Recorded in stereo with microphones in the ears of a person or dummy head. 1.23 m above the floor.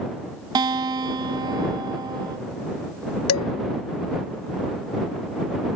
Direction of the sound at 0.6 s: 20° right (ahead or behind).